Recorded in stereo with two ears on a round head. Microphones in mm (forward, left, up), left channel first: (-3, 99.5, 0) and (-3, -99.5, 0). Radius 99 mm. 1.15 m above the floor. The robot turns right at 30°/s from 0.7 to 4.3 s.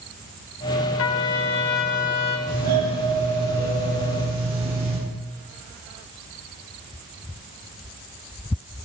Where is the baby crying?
I don't hear a baby crying.